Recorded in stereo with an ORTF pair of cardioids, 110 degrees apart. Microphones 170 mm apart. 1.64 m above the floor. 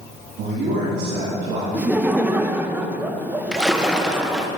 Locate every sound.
0.4 s a man speaking: 70° right, 3.5 m
1.7 s laughter: 10° right, 1.2 m
3.5 s a splash: 5° right, 1.4 m